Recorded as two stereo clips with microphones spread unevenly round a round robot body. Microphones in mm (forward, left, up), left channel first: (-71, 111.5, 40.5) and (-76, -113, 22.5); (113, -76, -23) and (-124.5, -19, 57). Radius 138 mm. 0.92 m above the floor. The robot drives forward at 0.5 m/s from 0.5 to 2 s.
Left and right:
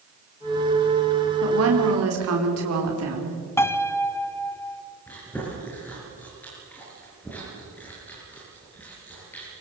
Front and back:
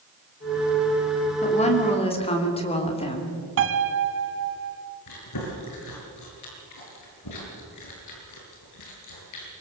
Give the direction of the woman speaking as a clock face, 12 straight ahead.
2 o'clock.